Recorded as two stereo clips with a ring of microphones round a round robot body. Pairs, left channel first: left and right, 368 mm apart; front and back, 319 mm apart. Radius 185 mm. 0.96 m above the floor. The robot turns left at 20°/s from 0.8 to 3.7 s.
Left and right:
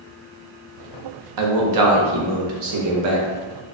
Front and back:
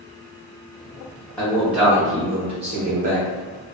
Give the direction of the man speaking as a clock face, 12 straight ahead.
3 o'clock.